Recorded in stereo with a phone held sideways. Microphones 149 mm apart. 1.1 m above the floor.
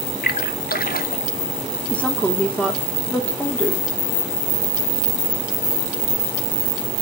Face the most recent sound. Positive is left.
turn(degrees=10)  # may be behind; listen again after turning